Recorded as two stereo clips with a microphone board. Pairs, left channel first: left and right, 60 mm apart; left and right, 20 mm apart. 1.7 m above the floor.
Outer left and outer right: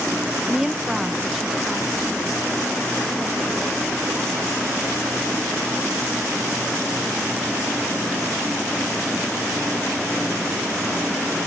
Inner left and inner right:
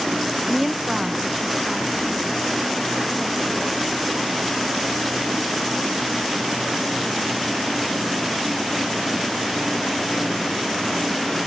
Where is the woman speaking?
10° right (ahead or behind); by 8.0 s centre (ahead or behind).